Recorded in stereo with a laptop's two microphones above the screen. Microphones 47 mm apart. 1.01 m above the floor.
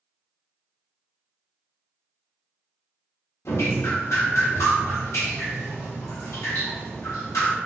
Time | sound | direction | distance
3.5 | dripping | 75° left (ahead or behind) | 1.2 m